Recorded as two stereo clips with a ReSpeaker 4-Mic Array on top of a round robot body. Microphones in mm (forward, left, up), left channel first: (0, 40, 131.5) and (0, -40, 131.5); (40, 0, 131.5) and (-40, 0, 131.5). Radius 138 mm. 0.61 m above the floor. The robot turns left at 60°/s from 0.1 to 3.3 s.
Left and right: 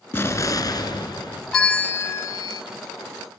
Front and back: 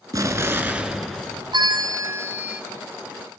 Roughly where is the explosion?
Behind left.